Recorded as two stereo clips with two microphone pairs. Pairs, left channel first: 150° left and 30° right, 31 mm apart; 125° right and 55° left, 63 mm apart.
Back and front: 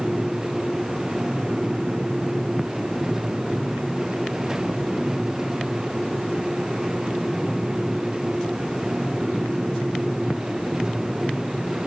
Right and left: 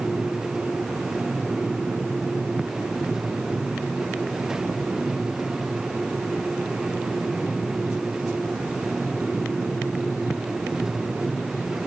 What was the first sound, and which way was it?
Only background noise.